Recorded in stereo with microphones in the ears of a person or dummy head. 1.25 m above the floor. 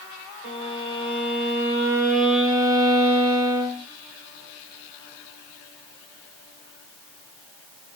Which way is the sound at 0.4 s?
45° right (ahead or behind).